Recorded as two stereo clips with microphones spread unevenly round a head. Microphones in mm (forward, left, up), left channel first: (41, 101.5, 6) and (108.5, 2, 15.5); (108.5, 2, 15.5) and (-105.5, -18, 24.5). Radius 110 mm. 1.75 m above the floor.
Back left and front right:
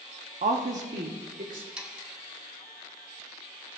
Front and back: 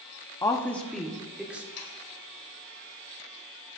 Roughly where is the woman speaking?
Right.